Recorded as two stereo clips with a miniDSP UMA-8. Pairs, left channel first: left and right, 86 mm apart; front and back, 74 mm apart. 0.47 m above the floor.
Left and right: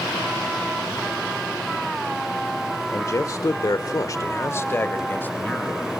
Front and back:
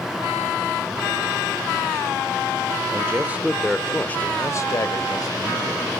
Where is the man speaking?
140° left, 1.5 m; by 6.0 s 15° left, 3 m.